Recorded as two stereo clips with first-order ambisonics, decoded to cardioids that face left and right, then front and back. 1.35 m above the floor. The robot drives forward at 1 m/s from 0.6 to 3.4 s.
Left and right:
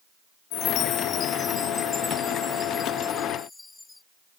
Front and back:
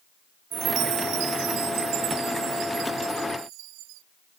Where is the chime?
125° left; by 4.0 s 170° left.